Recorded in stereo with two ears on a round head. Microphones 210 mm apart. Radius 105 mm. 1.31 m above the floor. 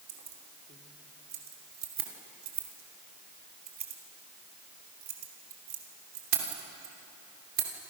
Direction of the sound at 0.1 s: 40° right (ahead or behind).